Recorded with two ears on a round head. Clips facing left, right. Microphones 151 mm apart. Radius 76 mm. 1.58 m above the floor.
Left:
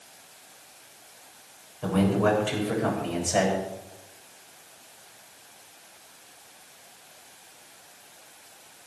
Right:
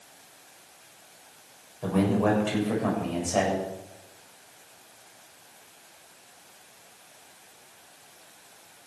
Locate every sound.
1.8 s a man speaking: 5° right (ahead or behind), 7 m; by 3.5 s 10° left (ahead or behind), 7.5 m